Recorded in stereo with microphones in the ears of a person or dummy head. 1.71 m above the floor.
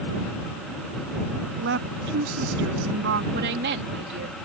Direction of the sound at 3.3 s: 65° right (ahead or behind).